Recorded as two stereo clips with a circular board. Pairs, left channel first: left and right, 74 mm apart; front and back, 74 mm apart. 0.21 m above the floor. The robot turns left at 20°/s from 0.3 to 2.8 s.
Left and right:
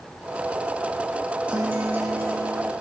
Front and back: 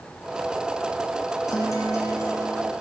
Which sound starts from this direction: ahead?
A guitar, at 1.5 s.